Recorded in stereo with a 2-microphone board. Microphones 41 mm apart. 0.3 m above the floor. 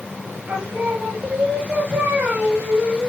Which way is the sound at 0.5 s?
40° right (ahead or behind).